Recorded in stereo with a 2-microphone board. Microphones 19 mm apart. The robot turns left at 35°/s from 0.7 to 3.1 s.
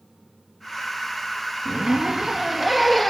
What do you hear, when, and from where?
1.6 s a zipper: 130° right, 2.5 m; by 3.1 s straight behind, 2.5 m